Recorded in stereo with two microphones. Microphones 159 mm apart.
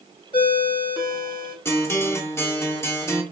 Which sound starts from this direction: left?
A ringtone, at 0.3 s.